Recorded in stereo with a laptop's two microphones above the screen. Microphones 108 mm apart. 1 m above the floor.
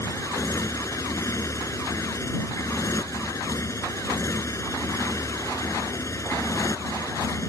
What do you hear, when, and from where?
0.0 s a motorcycle: 30° left (ahead or behind)